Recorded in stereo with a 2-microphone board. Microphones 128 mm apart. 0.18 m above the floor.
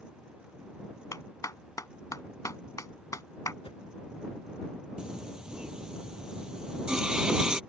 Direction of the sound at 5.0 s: 5° right (ahead or behind).